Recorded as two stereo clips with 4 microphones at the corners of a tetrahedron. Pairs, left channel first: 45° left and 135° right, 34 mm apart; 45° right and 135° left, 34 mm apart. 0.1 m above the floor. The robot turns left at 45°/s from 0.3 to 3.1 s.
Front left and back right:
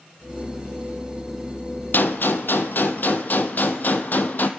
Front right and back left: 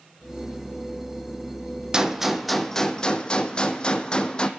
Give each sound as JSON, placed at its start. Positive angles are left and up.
{"t": 1.9, "sound": "a gunshot", "azimuth_deg": 70, "distance_m": 0.8}